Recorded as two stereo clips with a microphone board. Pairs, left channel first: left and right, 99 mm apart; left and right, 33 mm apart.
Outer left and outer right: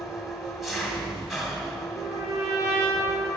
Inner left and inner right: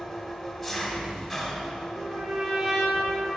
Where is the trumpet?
30° right (ahead or behind), 3 m.